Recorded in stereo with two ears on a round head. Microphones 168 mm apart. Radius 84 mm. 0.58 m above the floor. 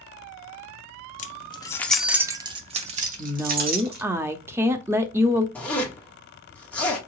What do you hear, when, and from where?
1.2 s keys jangling: 40° left (ahead or behind), 0.6 m; by 4.0 s 50° right (ahead or behind), 1.4 m
3.2 s a woman speaking: 10° right (ahead or behind), 0.6 m
5.5 s a zipper: 5° left (ahead or behind), 1.2 m